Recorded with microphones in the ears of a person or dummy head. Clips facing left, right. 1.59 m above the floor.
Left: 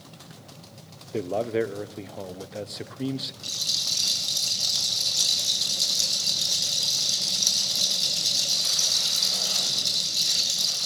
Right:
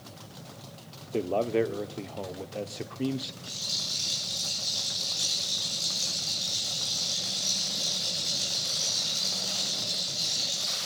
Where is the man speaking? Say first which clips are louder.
Even; 10° left (ahead or behind), 0.6 m.